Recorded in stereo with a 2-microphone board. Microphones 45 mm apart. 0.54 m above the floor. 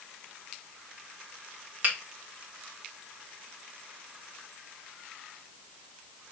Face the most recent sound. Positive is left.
turn(degrees=-35)  # may be behind; listen again after turning